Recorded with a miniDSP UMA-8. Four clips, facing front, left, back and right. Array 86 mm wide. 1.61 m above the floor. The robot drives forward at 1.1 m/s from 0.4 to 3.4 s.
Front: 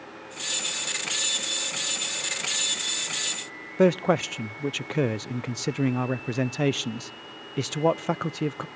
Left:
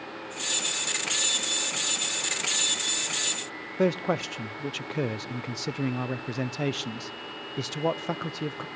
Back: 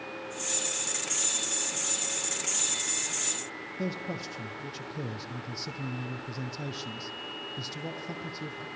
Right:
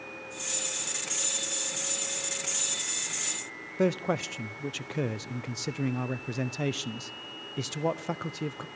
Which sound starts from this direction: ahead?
A man speaking, at 3.8 s.